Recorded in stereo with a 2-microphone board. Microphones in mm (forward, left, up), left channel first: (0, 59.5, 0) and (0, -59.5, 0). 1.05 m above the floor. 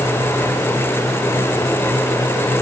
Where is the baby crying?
I don't hear a baby crying.